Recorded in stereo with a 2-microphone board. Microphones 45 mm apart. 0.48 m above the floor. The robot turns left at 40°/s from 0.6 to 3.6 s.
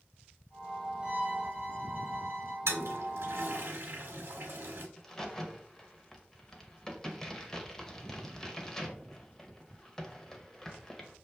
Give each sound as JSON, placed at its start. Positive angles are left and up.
{"t": 1.0, "sound": "a violin", "azimuth_deg": -35, "distance_m": 1.4}
{"t": 2.7, "sound": "a toilet flushing", "side_deg": -75, "distance_m": 0.9}
{"t": 5.0, "sound": "a crack", "side_deg": 10, "distance_m": 0.7}